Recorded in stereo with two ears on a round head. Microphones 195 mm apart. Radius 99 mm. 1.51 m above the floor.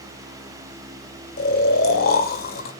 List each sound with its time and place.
1.4 s snoring: 45° left (ahead or behind), 1.7 m